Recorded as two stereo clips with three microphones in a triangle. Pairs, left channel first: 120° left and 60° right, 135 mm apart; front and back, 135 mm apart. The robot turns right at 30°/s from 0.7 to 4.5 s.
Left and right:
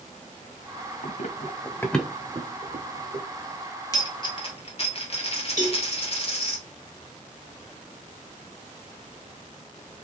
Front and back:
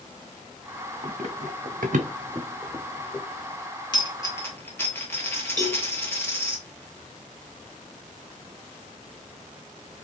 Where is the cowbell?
120° left, 1.4 m.